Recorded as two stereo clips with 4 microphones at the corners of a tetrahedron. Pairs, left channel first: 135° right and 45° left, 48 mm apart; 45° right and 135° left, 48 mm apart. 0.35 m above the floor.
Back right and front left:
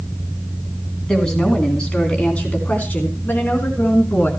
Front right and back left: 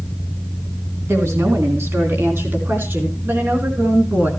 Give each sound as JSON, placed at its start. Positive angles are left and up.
{"t": 1.1, "sound": "a woman speaking", "azimuth_deg": 145, "distance_m": 3.5}